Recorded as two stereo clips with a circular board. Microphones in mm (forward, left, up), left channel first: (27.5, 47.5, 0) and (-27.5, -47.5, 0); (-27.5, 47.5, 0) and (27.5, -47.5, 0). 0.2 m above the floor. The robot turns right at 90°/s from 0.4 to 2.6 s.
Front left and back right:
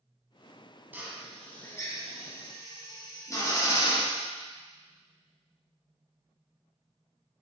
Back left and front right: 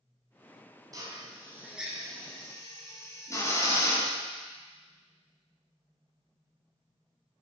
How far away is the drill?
About 1.9 m.